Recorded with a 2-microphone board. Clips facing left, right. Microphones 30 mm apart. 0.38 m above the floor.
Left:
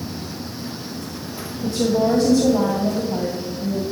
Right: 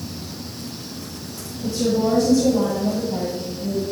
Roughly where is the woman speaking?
Left.